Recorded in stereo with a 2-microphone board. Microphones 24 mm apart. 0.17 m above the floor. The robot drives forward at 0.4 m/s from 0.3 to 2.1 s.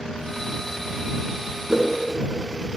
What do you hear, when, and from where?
1.7 s a whoosh: 30° right (ahead or behind), 1.4 m; by 1.9 s 35° right (ahead or behind), 1.4 m